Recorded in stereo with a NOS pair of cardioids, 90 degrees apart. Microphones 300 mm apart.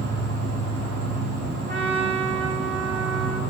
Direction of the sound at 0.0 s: 55° right.